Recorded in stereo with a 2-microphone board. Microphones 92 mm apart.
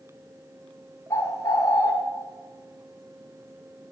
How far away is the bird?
About 0.6 m.